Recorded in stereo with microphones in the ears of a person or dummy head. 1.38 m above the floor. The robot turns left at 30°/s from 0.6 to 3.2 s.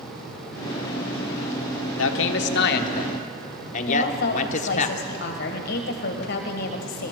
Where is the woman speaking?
55° left (ahead or behind), 1.5 m.